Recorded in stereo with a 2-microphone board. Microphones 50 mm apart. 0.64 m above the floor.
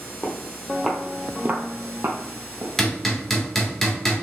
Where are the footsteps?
15° left (ahead or behind), 1.6 m; by 2.7 s 50° right (ahead or behind), 1.8 m.